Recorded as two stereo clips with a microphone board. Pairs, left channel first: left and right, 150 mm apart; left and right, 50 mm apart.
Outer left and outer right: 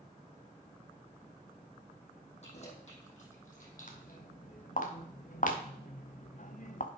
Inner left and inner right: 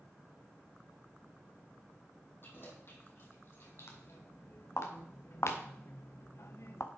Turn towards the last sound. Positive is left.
turn(degrees=60)  # may be behind; listen again after turning